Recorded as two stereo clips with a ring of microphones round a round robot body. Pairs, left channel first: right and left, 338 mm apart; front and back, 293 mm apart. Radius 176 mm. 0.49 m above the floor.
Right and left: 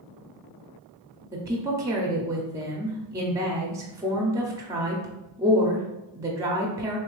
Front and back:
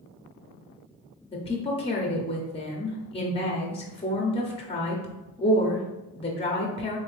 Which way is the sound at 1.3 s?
25° left.